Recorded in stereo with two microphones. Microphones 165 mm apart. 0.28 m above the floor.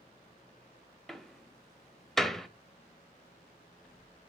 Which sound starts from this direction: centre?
A door slam, at 1.1 s.